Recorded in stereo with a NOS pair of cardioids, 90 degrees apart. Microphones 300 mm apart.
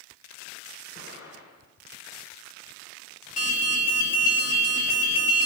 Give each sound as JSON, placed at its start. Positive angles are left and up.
{"t": 0.9, "sound": "an explosion", "azimuth_deg": 60, "distance_m": 3.5}
{"t": 3.4, "sound": "an alarm", "azimuth_deg": 25, "distance_m": 3.0}